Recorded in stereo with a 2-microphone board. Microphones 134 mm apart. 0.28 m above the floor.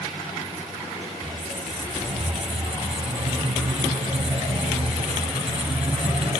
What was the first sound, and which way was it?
A squeak, 50° right (ahead or behind).